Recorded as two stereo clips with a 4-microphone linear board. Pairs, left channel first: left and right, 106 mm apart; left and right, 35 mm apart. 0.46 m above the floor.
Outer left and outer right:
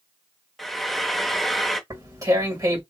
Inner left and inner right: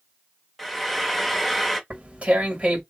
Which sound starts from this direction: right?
Tearing paper, at 1.9 s.